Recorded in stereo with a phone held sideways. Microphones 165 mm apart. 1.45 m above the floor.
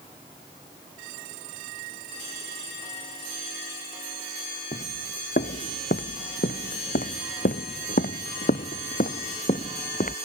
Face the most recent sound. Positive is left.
turn(degrees=45)  # may be behind; listen again after turning